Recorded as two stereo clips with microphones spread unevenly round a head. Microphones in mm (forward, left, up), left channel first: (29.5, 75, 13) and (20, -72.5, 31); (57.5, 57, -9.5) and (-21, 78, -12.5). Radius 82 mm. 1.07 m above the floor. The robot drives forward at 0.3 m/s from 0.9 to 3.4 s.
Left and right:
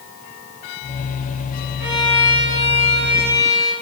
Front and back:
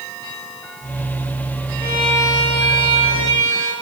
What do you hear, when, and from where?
1.8 s a violin: 15° right, 7 m